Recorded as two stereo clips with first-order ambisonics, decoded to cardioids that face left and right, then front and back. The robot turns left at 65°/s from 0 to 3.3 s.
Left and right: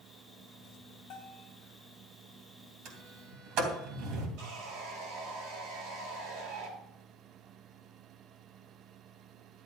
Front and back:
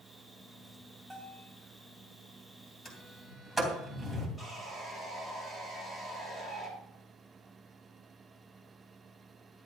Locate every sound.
1.1 s a bell: 100° left, 3 m; by 1.5 s 70° left, 3 m
2.9 s a sliding door: 60° right, 3 m; by 4.3 s 90° right, 3 m
4.4 s sawing: 80° right, 3.5 m